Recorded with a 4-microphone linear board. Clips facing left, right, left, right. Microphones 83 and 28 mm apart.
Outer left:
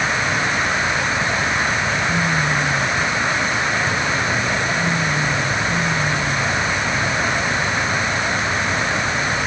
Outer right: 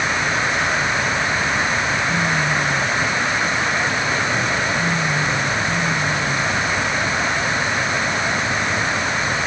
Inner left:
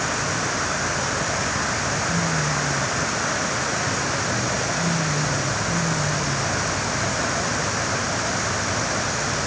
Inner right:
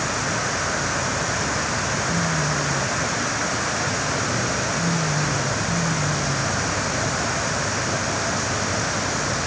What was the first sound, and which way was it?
Only background noise.